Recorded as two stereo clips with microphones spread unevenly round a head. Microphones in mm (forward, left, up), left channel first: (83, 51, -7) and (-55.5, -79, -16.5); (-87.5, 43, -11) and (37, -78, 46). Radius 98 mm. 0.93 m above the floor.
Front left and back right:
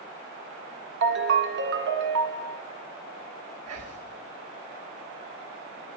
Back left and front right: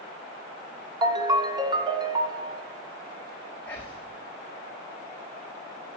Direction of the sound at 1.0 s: 110° right.